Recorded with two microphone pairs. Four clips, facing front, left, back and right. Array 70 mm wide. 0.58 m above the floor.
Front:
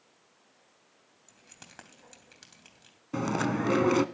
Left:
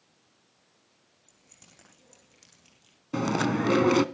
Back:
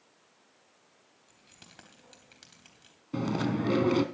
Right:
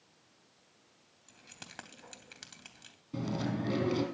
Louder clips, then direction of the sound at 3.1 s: Left 9 dB, front 1 dB; 60° left.